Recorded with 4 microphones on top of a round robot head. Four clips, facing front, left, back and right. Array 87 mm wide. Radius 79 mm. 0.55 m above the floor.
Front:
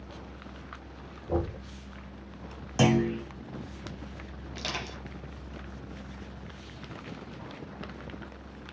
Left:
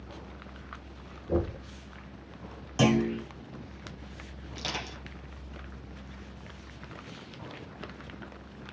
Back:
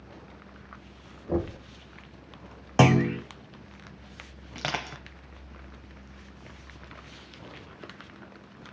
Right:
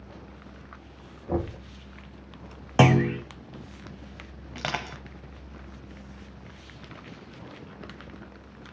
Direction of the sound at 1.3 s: 110° right.